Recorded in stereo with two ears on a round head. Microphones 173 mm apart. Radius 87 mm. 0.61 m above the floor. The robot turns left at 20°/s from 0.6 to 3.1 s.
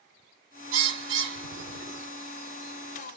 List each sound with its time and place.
0.7 s a bird: 75° right (ahead or behind), 0.9 m; by 2.1 s 50° right (ahead or behind), 0.9 m